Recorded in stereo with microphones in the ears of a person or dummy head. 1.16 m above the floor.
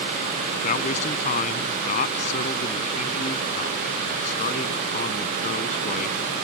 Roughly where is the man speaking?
Left.